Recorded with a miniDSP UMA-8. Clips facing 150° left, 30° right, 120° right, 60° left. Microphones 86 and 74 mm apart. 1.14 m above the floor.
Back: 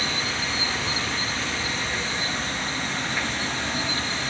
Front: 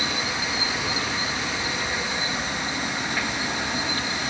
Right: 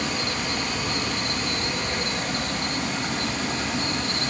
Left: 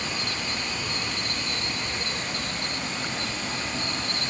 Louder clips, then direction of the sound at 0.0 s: Front 1 dB, right 4 dB; 105° right.